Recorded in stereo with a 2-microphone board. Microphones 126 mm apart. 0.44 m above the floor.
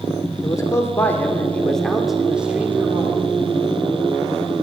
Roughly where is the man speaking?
Left.